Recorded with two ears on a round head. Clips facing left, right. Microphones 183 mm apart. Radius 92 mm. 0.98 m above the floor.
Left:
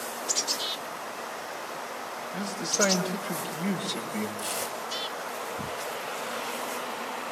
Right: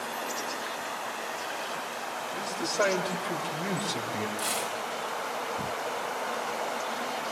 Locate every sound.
2.3 s a man speaking: 5° left (ahead or behind), 4 m; by 4.3 s 10° right (ahead or behind), 4 m
4.4 s tearing paper: 25° right (ahead or behind), 5 m